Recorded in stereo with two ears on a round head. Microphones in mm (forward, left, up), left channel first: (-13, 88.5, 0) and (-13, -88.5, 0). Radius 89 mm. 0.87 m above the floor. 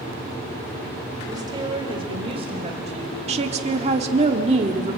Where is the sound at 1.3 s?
20° right (ahead or behind), 3.5 m; by 3.2 s 35° right (ahead or behind), 5 m.